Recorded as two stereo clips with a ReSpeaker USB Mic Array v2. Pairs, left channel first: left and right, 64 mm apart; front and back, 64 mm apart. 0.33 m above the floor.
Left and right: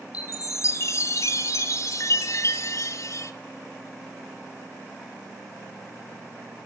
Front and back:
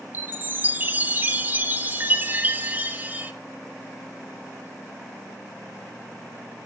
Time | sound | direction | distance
0.1 | a chime | 120° left | 0.5 m